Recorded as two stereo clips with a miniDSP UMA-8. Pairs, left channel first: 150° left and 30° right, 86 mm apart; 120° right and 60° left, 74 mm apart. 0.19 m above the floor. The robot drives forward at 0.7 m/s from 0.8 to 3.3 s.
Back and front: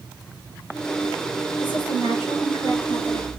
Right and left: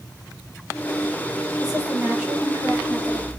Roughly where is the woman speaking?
Behind left.